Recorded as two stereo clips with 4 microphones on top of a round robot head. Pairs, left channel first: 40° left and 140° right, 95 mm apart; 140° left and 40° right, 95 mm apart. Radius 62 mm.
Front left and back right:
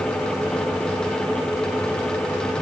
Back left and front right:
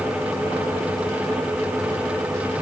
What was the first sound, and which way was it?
Only background noise.